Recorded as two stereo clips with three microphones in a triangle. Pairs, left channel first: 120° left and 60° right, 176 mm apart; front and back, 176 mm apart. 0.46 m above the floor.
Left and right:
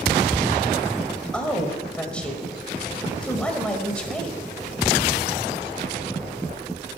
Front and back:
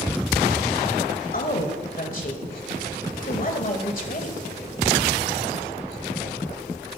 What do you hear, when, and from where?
1.3 s a woman speaking: 35° left, 1.7 m